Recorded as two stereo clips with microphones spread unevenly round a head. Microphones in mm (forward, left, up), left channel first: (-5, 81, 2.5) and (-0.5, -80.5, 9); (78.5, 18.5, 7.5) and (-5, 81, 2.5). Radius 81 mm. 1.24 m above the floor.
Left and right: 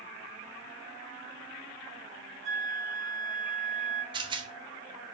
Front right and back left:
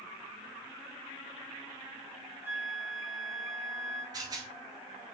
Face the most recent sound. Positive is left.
turn(degrees=-150)